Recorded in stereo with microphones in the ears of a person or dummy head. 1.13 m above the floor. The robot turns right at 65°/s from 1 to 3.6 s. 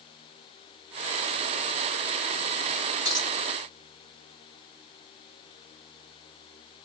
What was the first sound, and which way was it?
A dropped coin, 15° right (ahead or behind).